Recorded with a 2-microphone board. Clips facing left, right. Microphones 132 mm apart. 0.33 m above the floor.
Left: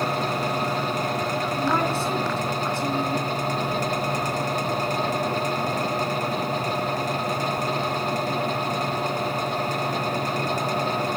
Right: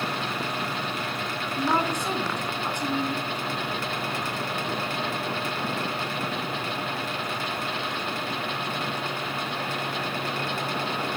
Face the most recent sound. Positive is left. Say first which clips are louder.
# right 1 dB
turn(degrees=-15)  # may be behind; listen again after turning